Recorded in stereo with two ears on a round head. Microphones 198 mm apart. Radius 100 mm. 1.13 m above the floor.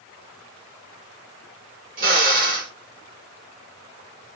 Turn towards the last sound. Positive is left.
turn(degrees=-40)  # may be behind; listen again after turning